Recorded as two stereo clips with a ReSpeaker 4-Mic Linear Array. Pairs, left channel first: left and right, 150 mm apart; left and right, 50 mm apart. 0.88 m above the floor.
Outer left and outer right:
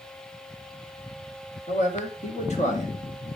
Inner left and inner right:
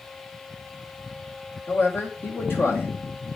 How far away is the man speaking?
About 1.7 m.